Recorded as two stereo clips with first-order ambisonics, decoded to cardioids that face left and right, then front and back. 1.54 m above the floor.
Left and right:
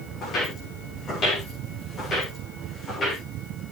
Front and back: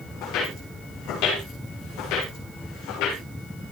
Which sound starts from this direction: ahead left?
Footsteps, at 0.2 s.